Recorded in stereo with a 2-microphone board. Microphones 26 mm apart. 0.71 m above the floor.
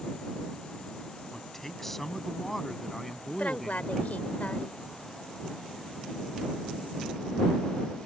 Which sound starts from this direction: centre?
A man speaking, at 1.3 s.